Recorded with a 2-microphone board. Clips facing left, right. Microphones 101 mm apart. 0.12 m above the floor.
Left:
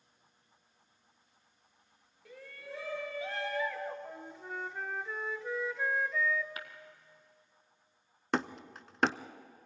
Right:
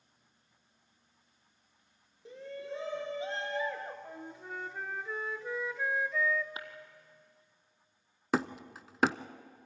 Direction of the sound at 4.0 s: Centre (ahead or behind).